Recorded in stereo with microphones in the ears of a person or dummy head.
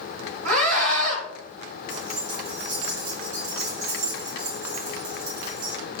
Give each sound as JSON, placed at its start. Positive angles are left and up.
{"t": 0.5, "sound": "a scream", "side_deg": -85, "distance_m": 3.0}
{"t": 1.9, "sound": "keys jangling", "side_deg": -70, "distance_m": 4.0}